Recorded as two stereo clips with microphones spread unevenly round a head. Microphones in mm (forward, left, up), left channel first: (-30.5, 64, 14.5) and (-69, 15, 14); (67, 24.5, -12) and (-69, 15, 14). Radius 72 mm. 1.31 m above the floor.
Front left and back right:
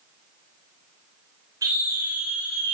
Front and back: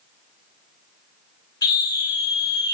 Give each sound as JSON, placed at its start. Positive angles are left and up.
{"t": 1.6, "sound": "a scream", "azimuth_deg": -60, "distance_m": 7.0}